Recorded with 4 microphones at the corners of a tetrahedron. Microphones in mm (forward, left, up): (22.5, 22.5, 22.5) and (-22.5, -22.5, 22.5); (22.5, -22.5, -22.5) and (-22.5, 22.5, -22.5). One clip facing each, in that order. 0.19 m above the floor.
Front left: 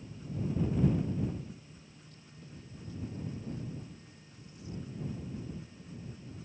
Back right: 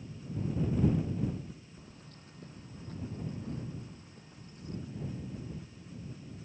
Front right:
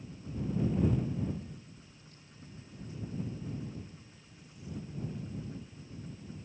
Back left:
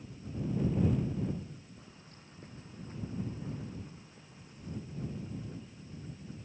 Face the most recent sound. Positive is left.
turn(degrees=180)